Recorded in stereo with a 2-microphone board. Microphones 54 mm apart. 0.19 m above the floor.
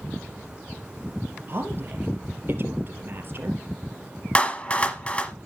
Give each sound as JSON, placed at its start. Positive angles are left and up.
{"t": 1.5, "sound": "a woman speaking", "side_deg": -45, "distance_m": 3.0}
{"t": 4.3, "sound": "a clap", "side_deg": 25, "distance_m": 1.1}